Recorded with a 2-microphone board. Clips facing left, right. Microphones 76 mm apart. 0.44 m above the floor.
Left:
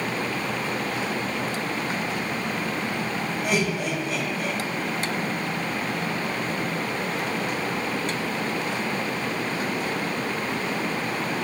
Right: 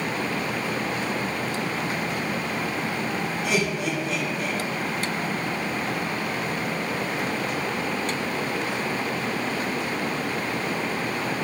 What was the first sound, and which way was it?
Laughter, 50° left (ahead or behind).